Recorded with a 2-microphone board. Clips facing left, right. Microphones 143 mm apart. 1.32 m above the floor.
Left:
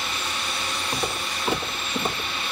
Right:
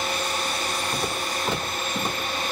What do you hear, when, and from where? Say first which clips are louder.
0.9 s footsteps: right 1 dB; 15° left (ahead or behind), 2.5 m; by 2.3 s 5° left (ahead or behind), 2.0 m